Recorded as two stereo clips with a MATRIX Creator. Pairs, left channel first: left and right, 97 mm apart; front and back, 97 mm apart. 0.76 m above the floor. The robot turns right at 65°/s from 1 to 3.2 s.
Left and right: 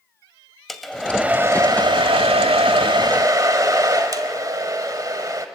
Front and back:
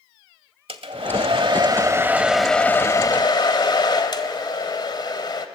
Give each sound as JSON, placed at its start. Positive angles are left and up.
{"t": 0.7, "sound": "a hair dryer", "azimuth_deg": 180, "distance_m": 1.3}